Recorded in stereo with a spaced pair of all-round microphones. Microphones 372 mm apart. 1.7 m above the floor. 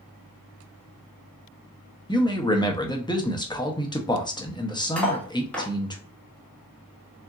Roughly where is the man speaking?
Centre.